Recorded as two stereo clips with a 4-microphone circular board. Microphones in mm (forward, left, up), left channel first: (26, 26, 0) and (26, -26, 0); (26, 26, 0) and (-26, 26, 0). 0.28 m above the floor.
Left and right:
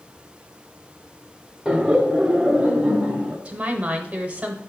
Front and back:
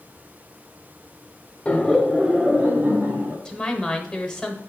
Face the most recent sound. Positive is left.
turn(degrees=-65)